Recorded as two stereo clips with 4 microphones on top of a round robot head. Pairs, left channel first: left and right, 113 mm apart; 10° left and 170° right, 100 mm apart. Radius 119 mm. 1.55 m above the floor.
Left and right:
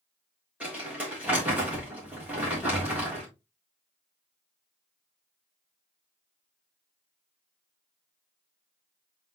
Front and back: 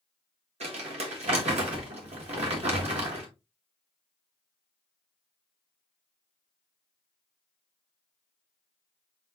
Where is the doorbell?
No doorbell in this recording.